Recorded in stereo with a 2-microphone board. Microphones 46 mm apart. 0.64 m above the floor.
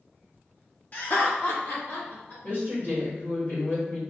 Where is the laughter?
35° left (ahead or behind), 1.0 m; by 2.3 s 70° left (ahead or behind), 2.5 m.